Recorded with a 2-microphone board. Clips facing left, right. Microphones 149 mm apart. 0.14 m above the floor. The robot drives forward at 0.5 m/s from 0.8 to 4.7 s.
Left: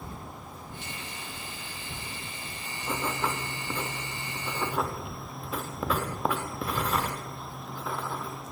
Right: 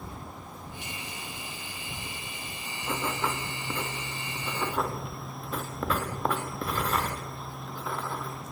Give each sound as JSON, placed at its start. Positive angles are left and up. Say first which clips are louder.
{"t": 2.8, "sound": "writing", "louder": "even", "side_deg": 10, "distance_m": 4.5}